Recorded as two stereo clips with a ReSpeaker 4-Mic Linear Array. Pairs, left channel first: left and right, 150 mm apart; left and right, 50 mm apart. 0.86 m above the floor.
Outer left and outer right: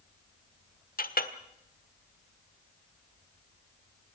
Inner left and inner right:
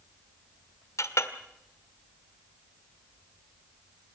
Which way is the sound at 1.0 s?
75° left (ahead or behind).